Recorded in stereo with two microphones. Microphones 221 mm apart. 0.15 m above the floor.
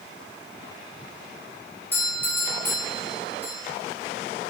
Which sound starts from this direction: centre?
A doorbell, at 1.9 s.